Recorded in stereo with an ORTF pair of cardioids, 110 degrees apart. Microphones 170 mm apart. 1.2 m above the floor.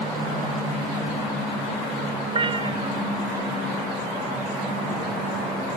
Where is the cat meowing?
30° right.